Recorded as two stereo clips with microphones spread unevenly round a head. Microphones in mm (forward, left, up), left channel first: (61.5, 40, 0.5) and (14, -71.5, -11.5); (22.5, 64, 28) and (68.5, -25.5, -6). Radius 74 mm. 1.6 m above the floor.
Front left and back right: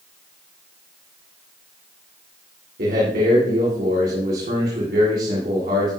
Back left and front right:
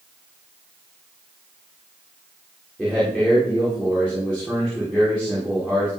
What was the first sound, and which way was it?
A man speaking, 150° right.